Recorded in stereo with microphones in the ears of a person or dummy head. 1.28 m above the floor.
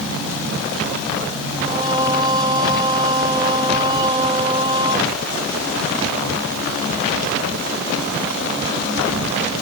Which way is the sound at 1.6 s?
25° right (ahead or behind).